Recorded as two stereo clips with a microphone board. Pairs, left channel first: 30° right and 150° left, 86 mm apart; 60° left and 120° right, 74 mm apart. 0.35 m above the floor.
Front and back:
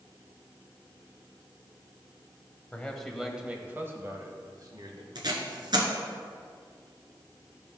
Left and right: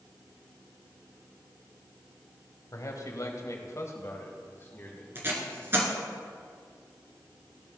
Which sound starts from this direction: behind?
Tape being pulled, at 5.2 s.